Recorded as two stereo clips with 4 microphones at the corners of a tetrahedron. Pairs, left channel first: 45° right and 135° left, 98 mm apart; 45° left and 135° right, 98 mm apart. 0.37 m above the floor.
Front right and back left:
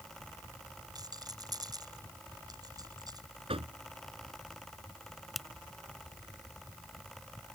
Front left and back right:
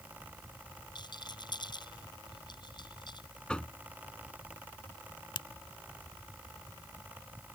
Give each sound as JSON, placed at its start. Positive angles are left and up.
{"t": 0.9, "sound": "a rattle", "azimuth_deg": 85}
{"t": 3.5, "sound": "knocking", "azimuth_deg": 125}
{"t": 5.3, "sound": "a finger snap", "azimuth_deg": 45}